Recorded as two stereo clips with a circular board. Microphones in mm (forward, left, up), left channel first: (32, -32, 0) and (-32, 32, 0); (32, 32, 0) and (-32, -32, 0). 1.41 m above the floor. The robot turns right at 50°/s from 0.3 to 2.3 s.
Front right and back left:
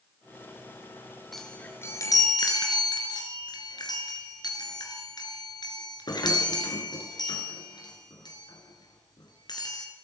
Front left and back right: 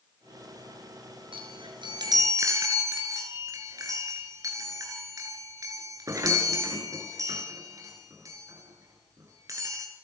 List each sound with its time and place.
1.3 s a chime: 135° right, 5 m; by 9.9 s 85° right, 5 m